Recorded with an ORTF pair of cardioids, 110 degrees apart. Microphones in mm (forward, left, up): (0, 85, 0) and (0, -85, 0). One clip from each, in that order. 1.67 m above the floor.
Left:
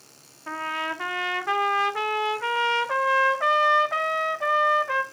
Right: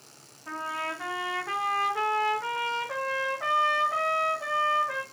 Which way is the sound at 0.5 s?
35° left.